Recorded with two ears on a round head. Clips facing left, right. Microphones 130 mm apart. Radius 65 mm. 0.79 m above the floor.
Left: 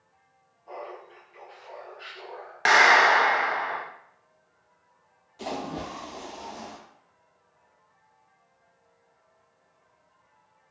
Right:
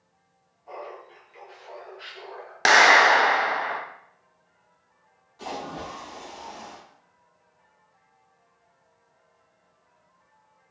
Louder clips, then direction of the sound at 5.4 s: Left 1 dB; 25° left (ahead or behind).